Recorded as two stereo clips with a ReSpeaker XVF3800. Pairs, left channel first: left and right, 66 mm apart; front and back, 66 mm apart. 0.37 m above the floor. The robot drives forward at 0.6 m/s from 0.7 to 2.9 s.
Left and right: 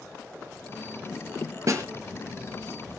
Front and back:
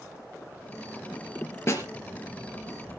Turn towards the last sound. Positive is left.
turn(degrees=-60)